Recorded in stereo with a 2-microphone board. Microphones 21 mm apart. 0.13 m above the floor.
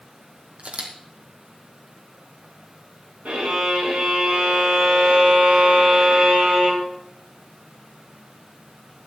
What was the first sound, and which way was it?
A camera shutter, 75° right (ahead or behind).